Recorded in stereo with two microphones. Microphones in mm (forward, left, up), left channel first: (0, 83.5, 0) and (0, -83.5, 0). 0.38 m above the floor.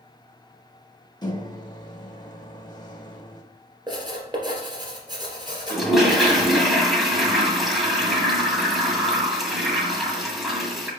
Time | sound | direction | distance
1.2 | a microwave | 25° left (ahead or behind) | 0.8 m
3.9 | writing | 25° right (ahead or behind) | 2.5 m
5.7 | a toilet flushing | centre (ahead or behind) | 1.7 m